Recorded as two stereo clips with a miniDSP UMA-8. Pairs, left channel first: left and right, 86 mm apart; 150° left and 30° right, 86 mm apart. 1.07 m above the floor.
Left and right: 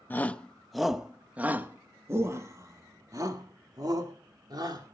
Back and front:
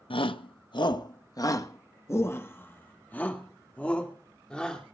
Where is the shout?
160° left, 0.9 m; by 4.9 s 130° right, 3 m.